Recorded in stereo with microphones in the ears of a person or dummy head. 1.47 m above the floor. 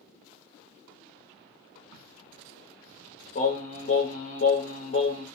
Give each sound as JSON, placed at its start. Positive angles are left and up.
{"t": 1.9, "sound": "a crack", "side_deg": -65, "distance_m": 0.6}
{"t": 3.4, "sound": "singing", "side_deg": 50, "distance_m": 1.4}